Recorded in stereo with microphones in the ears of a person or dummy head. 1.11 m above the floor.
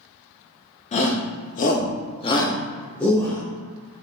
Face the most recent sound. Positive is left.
turn(degrees=5)  # may be behind; listen again after turning